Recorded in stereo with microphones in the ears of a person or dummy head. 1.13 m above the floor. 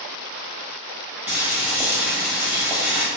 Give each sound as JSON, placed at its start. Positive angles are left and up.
{"t": 1.3, "sound": "boiling", "side_deg": -10, "distance_m": 0.7}